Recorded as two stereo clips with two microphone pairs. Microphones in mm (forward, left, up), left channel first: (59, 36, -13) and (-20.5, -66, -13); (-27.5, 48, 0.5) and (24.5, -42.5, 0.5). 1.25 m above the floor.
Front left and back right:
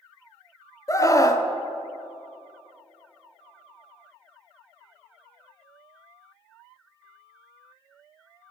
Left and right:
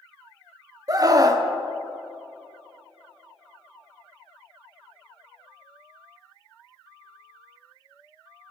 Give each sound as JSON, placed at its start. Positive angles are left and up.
{"t": 0.9, "sound": "a scream", "azimuth_deg": -10, "distance_m": 0.6}